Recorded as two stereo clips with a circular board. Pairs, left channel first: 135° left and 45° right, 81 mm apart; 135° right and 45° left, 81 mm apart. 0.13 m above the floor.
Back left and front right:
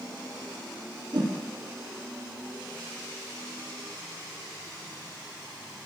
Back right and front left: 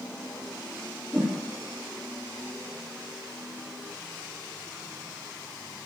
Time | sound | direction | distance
1.1 | a whoosh | 20° right | 2 m